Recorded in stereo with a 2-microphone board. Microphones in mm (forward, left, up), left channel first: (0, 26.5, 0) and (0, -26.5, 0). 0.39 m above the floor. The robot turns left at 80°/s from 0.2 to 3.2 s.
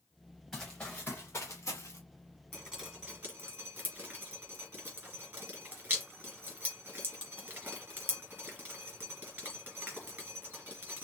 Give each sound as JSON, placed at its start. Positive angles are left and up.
{"t": 0.5, "sound": "running footsteps", "side_deg": -5, "distance_m": 2.5}
{"t": 2.5, "sound": "dripping", "side_deg": 25, "distance_m": 3.0}